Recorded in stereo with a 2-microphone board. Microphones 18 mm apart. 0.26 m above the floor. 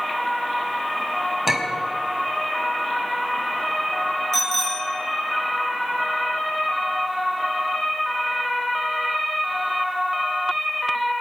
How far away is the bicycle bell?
About 3 m.